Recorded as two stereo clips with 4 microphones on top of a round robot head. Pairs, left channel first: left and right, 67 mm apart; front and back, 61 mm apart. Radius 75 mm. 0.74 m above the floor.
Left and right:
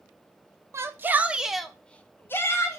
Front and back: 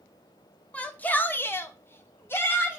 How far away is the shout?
About 0.7 m.